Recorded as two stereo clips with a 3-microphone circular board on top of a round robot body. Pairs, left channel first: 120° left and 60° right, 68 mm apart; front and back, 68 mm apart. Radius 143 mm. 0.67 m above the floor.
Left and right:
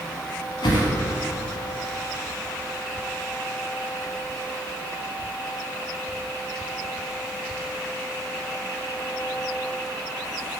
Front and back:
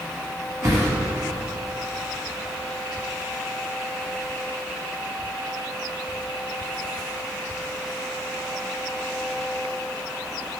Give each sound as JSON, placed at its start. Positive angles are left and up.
{"t": 0.6, "sound": "a whoosh", "azimuth_deg": 130, "distance_m": 1.0}